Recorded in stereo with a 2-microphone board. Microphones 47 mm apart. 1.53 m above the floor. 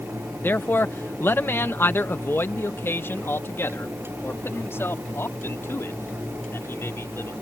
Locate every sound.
0.4 s a man speaking: 50° left (ahead or behind); by 7.3 s 65° left (ahead or behind)